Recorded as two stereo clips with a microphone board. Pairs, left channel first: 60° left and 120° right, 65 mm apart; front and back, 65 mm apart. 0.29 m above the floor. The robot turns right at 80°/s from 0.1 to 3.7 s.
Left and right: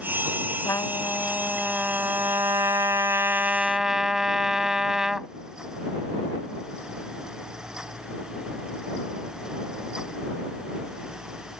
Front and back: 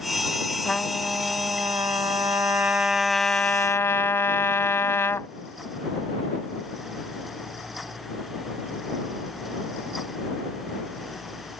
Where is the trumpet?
75° left; by 5.3 s 40° right.